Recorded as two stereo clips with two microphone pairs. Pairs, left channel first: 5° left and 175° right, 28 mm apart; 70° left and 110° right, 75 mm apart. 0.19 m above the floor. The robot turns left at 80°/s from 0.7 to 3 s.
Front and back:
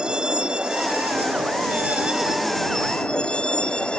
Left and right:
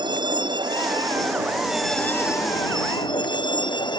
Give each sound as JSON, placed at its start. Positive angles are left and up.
{"t": 0.0, "sound": "a vehicle", "azimuth_deg": -110}